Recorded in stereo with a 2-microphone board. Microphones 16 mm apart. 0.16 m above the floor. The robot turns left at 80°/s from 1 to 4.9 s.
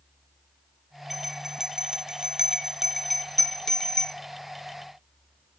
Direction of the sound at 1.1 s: 20° right (ahead or behind).